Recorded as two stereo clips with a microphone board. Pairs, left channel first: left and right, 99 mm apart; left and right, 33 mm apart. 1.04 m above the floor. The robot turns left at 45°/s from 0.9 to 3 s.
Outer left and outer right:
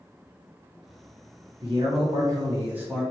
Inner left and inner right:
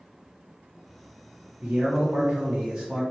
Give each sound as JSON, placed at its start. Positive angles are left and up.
{"t": 1.6, "sound": "a man speaking", "azimuth_deg": -110, "distance_m": 1.5}